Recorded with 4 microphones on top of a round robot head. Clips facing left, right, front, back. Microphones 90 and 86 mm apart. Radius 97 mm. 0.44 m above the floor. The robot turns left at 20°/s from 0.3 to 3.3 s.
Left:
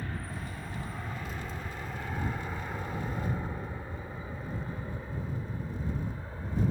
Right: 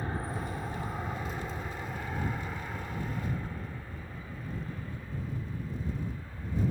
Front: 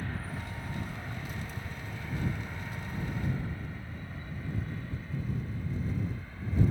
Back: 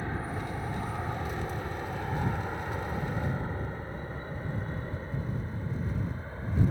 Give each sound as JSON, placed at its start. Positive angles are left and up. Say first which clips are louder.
{"t": 0.0, "sound": "an aircraft", "louder": "right 4 dB, back 5 dB", "azimuth_deg": -135}